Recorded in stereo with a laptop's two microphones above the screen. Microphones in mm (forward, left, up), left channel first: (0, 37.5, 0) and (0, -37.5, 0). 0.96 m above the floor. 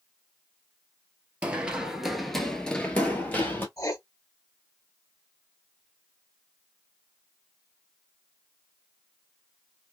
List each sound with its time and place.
1.4 s running footsteps: 15° right (ahead or behind), 1.0 m; by 3.7 s 30° left (ahead or behind), 1.2 m
3.8 s writing: 50° left (ahead or behind), 1.2 m